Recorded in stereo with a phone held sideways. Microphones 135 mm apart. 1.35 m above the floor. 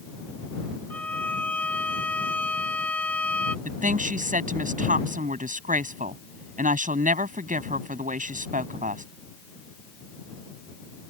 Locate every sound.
0.9 s a violin: 10° left (ahead or behind)
3.6 s a woman speaking: 75° right (ahead or behind)